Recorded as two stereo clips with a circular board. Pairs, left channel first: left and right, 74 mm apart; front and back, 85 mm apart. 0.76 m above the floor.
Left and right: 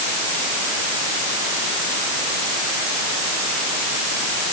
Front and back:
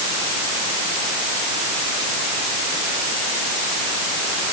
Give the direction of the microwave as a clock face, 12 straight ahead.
I don't hear a microwave.